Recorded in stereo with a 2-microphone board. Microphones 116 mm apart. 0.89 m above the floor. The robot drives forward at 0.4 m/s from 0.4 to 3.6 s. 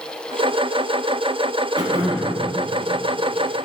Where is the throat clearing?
40° right (ahead or behind), 1.1 m; by 2.4 s 35° right (ahead or behind), 1.3 m.